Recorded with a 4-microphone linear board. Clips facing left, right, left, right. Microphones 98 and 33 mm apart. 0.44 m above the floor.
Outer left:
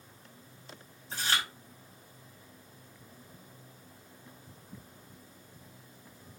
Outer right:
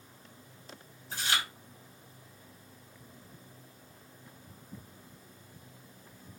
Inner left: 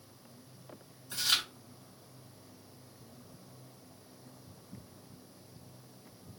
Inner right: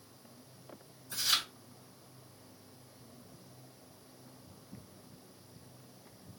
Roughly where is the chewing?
Left.